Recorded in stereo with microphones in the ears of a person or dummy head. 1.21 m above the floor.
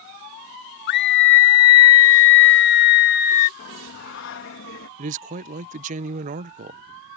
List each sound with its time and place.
0.9 s a scream: 55° left (ahead or behind); by 3.5 s 45° left (ahead or behind)
3.6 s singing: 65° left (ahead or behind)
5.0 s a man speaking: 40° right (ahead or behind)